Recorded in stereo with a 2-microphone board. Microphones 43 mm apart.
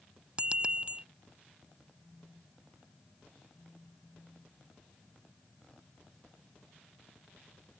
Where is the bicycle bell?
25° right (ahead or behind).